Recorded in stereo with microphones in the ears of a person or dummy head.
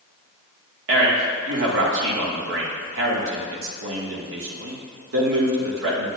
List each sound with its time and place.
0.9 s a man speaking: 70° right (ahead or behind), 1.7 m